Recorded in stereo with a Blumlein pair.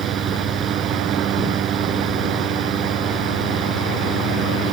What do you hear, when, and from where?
0.0 s a fan: 25° right